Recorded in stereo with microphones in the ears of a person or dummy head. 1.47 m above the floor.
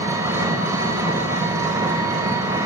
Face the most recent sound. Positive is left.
turn(degrees=-15)  # may be behind; listen again after turning